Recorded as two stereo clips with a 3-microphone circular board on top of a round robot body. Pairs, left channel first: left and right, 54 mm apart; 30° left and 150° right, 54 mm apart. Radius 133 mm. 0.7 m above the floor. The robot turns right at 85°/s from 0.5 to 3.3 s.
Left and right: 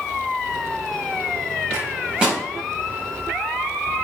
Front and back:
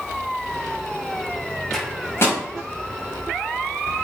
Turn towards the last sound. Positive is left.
turn(degrees=75)